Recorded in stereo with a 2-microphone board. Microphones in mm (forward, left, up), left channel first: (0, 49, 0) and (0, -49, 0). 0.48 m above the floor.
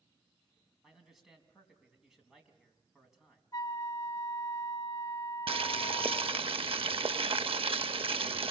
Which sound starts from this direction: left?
A flute, at 3.5 s.